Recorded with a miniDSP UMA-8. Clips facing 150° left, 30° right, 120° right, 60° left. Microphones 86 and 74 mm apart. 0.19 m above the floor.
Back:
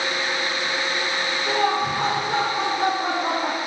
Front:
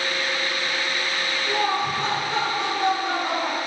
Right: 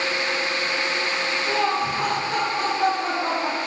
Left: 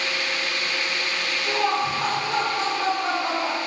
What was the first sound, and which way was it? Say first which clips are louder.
Laughter: back 2 dB, left 1 dB; 140° left.